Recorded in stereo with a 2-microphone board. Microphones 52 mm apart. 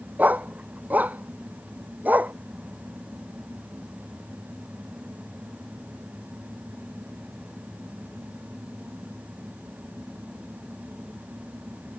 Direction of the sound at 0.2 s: 35° right (ahead or behind).